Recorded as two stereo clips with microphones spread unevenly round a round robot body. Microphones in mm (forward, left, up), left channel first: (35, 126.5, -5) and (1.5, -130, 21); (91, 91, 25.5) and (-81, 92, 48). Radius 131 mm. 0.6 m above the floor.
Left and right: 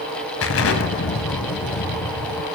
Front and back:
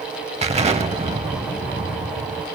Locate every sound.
0.4 s an explosion: 125° left, 1.2 m